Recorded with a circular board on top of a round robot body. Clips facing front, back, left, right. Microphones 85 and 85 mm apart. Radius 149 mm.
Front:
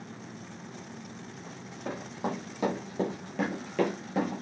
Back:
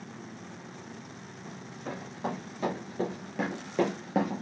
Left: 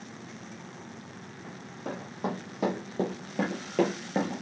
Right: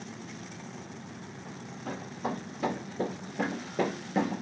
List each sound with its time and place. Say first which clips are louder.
1.4 s running footsteps: front 1 dB, left 2 dB; 65° left, 2 m; by 4.4 s 175° left, 0.6 m